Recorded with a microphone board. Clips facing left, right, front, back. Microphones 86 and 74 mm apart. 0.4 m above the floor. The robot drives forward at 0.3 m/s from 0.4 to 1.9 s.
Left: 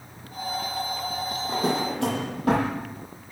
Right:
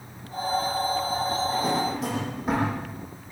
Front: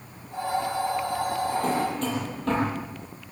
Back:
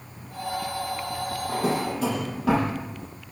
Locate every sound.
1.5 s a drawer: 100° left, 8 m